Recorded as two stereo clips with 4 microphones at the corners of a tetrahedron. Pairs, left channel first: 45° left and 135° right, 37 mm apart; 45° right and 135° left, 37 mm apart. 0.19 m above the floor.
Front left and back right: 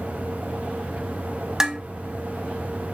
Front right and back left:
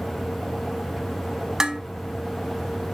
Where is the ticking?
No ticking in this recording.